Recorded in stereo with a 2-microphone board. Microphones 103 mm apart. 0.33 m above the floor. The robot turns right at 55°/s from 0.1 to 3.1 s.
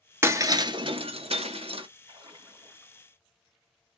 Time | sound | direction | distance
0.2 | breaking glass | 25° right (ahead or behind) | 0.6 m
2.1 | a splash | 70° right | 2 m